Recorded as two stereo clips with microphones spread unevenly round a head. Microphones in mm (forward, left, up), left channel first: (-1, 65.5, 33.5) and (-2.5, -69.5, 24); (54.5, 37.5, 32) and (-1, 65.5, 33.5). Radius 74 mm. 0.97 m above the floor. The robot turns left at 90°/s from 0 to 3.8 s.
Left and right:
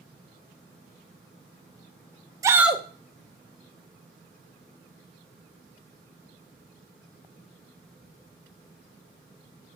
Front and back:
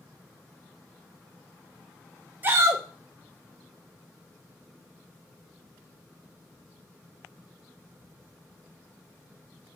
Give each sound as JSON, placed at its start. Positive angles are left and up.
{"t": 2.4, "sound": "a shout", "azimuth_deg": -150, "distance_m": 0.5}